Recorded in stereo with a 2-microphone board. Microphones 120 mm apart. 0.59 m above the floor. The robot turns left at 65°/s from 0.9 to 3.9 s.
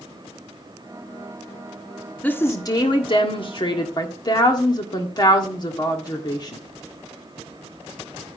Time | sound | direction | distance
2.2 | a woman speaking | 165° left | 1.5 m